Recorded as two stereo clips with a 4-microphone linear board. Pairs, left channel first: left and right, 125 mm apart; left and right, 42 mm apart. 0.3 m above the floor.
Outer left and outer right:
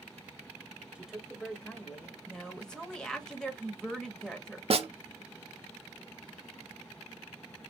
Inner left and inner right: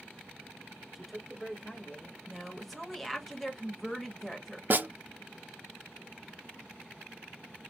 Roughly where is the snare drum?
Right.